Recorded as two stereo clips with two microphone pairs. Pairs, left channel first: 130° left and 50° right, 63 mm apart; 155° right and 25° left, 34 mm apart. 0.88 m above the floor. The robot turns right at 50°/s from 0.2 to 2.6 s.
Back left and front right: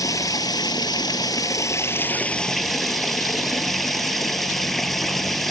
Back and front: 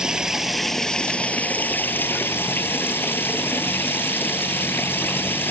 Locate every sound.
0.0 s running water: 95° left; by 5.5 s 145° right